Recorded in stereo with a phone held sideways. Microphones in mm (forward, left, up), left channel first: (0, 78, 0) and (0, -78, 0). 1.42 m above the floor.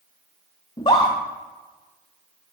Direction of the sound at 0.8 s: 30° left (ahead or behind).